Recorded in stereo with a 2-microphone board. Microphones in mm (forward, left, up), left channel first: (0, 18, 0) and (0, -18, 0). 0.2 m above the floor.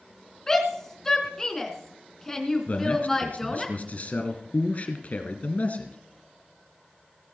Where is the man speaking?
45° left (ahead or behind), 2.5 m.